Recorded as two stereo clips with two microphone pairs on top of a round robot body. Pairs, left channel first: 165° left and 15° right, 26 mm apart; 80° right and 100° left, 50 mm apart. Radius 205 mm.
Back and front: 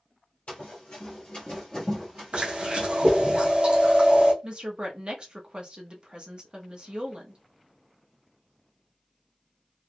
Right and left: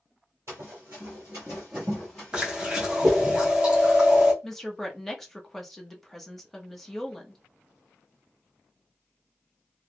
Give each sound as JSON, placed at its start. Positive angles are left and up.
{"t": 0.5, "sound": "running footsteps", "azimuth_deg": 130, "distance_m": 1.0}
{"t": 2.3, "sound": "chewing", "azimuth_deg": 30, "distance_m": 1.1}
{"t": 4.4, "sound": "a woman speaking", "azimuth_deg": -5, "distance_m": 1.0}